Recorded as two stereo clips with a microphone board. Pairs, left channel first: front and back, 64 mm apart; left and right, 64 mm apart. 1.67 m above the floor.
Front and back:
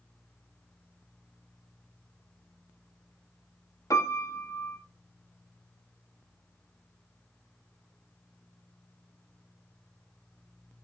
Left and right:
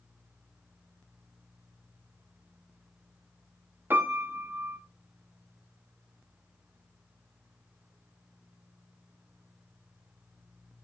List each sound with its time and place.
3.9 s a piano: 30° right, 1.4 m